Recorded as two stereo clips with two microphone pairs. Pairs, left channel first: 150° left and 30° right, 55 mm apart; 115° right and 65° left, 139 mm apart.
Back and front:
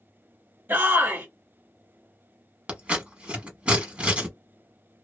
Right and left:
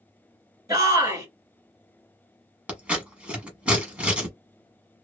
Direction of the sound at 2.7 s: 5° right.